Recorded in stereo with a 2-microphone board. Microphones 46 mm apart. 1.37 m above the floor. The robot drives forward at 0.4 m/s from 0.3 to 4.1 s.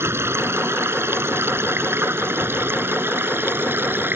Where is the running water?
70° right (ahead or behind); by 4.2 s 55° right (ahead or behind).